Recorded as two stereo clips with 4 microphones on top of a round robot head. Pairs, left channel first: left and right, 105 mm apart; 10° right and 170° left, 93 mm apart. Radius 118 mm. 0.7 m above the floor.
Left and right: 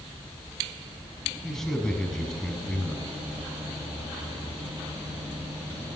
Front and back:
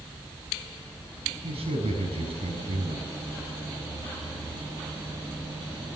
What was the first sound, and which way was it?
A man speaking, 170° left.